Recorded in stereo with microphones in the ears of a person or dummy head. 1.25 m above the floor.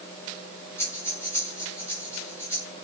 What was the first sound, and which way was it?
Breathing, 10° left (ahead or behind).